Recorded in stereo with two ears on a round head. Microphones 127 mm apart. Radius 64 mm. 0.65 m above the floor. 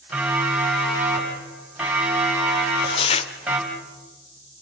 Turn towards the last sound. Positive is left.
turn(degrees=40)  # may be behind; listen again after turning